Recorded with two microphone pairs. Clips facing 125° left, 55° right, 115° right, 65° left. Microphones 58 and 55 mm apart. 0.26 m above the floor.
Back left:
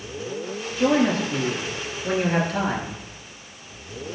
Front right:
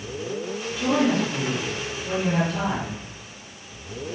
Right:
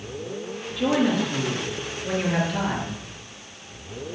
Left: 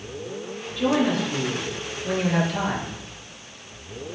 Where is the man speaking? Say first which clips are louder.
Back left 2 dB, even; 155° left, 4.5 m.